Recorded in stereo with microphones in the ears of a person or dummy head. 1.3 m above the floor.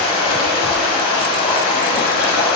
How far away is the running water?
About 4.5 m.